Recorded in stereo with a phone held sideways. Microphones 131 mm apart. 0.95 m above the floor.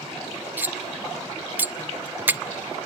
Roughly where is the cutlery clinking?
Centre.